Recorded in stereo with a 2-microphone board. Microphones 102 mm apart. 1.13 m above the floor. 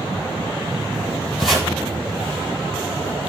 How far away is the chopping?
About 6.5 m.